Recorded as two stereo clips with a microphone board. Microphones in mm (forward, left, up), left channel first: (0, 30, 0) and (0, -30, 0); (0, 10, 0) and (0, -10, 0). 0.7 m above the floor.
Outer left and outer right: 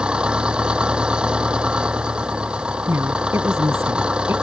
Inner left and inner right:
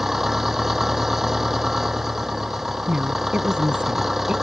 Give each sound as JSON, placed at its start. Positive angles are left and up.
{"t": 0.0, "sound": "an engine running", "side_deg": -15}
{"t": 2.9, "sound": "a woman speaking", "side_deg": -50}